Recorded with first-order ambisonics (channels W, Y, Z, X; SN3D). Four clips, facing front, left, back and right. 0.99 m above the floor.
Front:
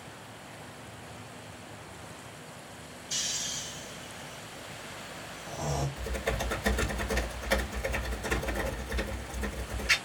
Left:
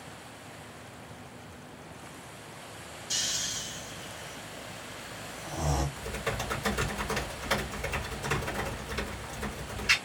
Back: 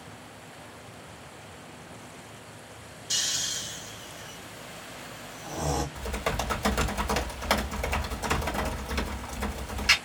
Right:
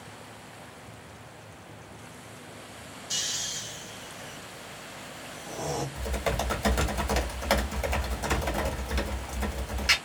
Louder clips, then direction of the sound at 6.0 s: Right 3 dB, back 2 dB; 140° right.